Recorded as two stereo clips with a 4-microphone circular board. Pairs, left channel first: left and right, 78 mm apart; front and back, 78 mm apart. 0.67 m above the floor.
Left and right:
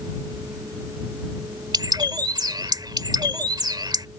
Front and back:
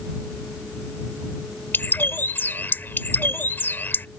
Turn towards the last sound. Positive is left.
turn(degrees=-65)